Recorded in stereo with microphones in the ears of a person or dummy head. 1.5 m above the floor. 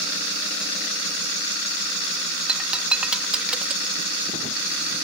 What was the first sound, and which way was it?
Breaking glass, 5° right (ahead or behind).